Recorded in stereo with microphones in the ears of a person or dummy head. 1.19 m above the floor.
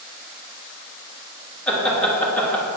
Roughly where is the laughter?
Centre.